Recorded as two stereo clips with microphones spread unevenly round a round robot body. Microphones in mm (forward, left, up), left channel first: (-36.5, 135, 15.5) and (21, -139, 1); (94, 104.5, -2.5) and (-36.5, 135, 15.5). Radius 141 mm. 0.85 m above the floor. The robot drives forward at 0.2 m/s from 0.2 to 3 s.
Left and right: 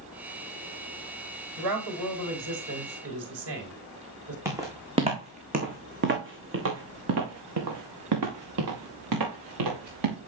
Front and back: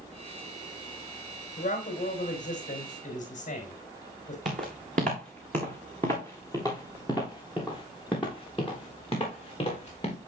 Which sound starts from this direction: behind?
Footsteps, at 4.5 s.